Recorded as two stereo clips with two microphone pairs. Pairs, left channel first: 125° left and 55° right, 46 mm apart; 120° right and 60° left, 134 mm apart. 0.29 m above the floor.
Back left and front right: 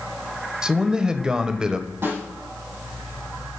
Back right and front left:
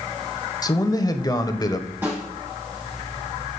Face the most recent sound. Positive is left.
turn(degrees=-15)